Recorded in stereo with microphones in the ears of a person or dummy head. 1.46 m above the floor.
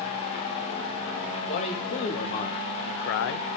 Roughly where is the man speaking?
Left.